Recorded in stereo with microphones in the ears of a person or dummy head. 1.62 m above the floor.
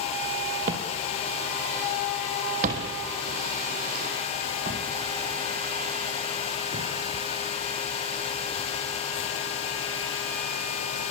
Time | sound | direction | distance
0.7 | footsteps | 40° right (ahead or behind) | 2.5 m